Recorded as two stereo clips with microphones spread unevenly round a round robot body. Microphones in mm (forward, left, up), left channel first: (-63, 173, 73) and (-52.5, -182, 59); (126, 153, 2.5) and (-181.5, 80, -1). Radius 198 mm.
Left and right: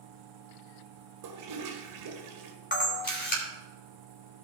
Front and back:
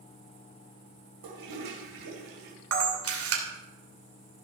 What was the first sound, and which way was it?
A toilet flushing, 125° right.